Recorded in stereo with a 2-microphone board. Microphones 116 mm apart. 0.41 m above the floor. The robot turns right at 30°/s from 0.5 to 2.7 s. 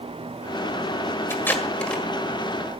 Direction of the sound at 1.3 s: 20° left (ahead or behind).